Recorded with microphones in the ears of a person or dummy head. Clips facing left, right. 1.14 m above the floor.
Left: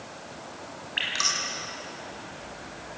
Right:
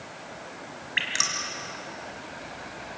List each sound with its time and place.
1.0 s dripping: 30° right (ahead or behind), 3.5 m